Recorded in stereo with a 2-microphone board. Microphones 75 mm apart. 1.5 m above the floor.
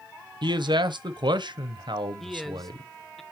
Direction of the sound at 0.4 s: 85° right.